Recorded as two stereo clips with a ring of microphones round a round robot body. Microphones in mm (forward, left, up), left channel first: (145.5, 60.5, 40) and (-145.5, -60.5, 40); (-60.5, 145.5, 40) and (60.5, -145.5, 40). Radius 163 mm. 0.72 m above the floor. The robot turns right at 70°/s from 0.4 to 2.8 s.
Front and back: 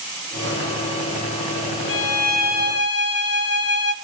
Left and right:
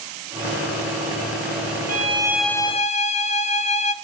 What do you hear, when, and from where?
1.9 s a violin: 15° right, 0.7 m; by 3.9 s 50° left, 0.7 m